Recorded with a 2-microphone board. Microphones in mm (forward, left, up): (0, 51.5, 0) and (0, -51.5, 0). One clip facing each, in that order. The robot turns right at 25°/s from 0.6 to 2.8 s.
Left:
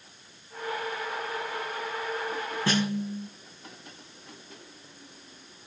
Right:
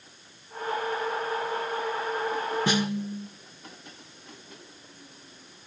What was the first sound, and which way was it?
A snare drum, 15° right (ahead or behind).